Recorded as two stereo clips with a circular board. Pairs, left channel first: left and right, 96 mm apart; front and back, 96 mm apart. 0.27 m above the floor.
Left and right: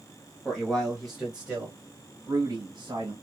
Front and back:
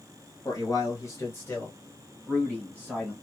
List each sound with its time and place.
0.5 s a man speaking: 15° left, 1.3 m; by 3.1 s 90° right, 1.5 m